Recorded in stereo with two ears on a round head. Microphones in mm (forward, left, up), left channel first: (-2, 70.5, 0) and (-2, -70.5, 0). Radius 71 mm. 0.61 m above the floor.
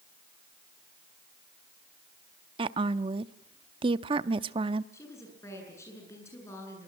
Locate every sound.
2.6 s a woman speaking: 35° right (ahead or behind), 0.7 m
4.9 s a woman speaking: 20° left (ahead or behind), 8.5 m